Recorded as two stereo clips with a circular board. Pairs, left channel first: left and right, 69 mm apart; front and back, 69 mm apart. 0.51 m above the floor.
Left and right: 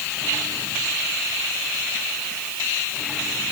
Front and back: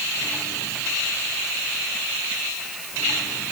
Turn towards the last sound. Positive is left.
No sound to turn to.